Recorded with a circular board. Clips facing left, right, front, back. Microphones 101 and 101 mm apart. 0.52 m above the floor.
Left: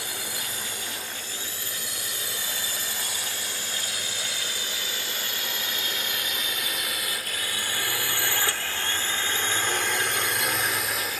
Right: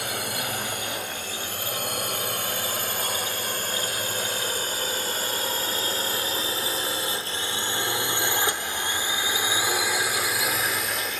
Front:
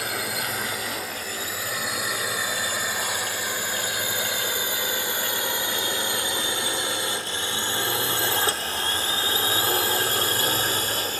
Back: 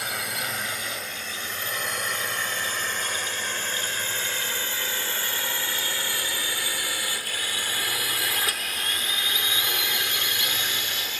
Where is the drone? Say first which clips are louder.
Right 6 dB, front 2 dB; 90° right; by 11.2 s 5° left.